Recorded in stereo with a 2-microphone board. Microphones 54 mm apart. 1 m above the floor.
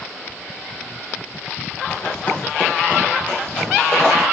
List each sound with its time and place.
1.9 s running footsteps: 50° left (ahead or behind), 4 m; by 4.2 s 5° left (ahead or behind), 3.5 m